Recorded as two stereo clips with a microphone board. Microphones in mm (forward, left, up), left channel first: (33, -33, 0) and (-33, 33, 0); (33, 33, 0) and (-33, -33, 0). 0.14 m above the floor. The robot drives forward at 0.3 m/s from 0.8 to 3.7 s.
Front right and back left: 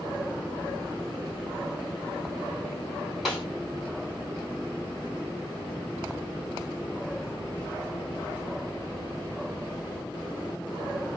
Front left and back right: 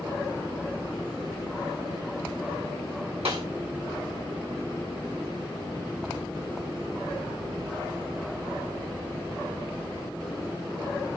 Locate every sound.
3.2 s a snare drum: 135° right, 2.5 m; by 3.5 s 140° right, 2.5 m